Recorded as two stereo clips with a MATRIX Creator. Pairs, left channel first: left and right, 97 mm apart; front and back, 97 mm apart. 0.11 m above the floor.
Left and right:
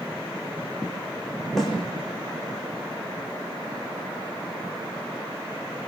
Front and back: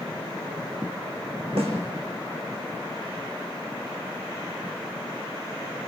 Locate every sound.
1.6 s a snare drum: straight behind, 7.5 m